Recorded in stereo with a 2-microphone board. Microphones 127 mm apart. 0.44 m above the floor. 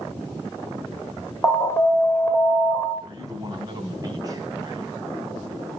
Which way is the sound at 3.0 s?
35° right (ahead or behind).